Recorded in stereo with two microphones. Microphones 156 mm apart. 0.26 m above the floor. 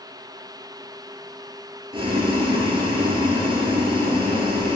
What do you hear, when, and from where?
1.9 s boiling: 35° right (ahead or behind), 1.3 m